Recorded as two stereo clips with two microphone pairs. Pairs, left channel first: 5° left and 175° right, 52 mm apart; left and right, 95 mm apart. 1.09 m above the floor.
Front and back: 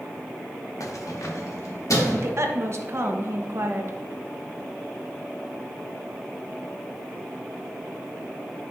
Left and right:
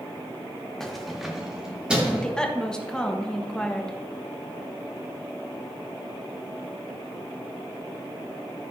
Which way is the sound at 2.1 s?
175° left.